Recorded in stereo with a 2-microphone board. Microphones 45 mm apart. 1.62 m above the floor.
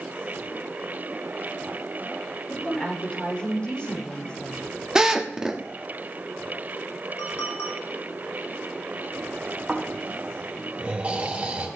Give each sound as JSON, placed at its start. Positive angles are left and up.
{"t": 2.5, "sound": "a woman speaking", "side_deg": 25, "distance_m": 6.5}
{"t": 5.0, "sound": "a drill", "side_deg": -15, "distance_m": 1.3}
{"t": 7.2, "sound": "a clink", "side_deg": 75, "distance_m": 4.0}
{"t": 9.7, "sound": "snoring", "side_deg": -30, "distance_m": 3.0}